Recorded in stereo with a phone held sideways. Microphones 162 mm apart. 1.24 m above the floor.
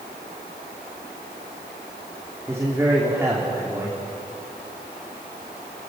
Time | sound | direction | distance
2.5 | a man speaking | 15° right (ahead or behind) | 3 m